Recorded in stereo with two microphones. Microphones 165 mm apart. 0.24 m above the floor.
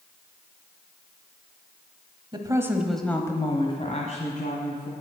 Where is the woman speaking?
30° right (ahead or behind), 1.2 m; by 4.9 s 60° left (ahead or behind), 2 m.